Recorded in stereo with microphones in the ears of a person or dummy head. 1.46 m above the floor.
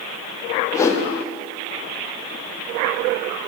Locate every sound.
0.7 s a whoosh: 5° left (ahead or behind), 0.5 m